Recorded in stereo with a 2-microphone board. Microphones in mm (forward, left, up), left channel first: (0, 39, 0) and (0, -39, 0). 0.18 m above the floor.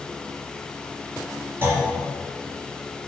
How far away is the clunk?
About 2.5 m.